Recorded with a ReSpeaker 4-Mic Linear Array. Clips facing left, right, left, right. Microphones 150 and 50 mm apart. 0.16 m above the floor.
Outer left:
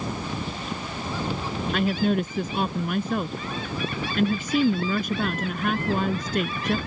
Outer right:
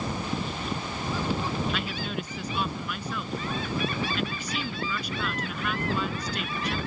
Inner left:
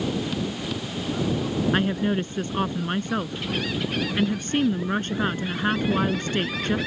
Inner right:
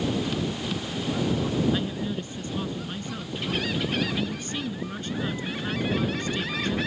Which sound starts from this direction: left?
A woman speaking, at 1.7 s.